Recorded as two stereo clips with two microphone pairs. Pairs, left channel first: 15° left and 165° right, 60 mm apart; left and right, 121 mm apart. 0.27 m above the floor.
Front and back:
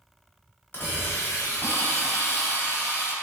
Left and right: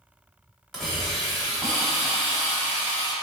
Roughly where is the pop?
No pop in this recording.